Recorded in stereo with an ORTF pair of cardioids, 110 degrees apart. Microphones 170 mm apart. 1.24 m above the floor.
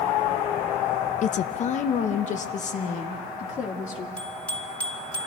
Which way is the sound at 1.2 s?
45° left.